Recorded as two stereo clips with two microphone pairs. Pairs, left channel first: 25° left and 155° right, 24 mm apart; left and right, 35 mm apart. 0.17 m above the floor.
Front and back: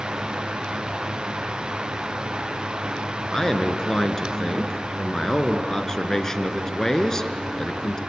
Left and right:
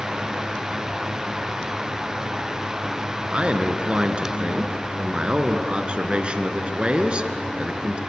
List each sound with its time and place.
3.3 s a man speaking: 40° right, 1.9 m